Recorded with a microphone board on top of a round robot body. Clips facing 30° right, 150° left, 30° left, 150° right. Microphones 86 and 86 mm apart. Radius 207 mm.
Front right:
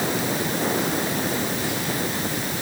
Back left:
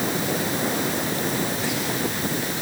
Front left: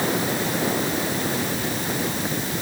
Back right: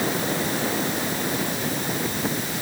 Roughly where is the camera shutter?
No camera shutter in this recording.